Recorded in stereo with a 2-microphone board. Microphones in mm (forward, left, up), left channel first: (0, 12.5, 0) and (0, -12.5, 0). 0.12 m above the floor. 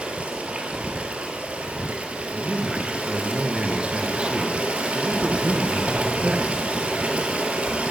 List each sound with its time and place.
0.0 s running water: 60° right (ahead or behind), 1.8 m
2.3 s a man speaking: 40° right (ahead or behind), 1.4 m